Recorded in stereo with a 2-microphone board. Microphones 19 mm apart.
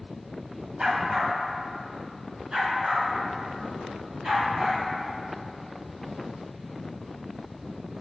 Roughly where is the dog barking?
Right.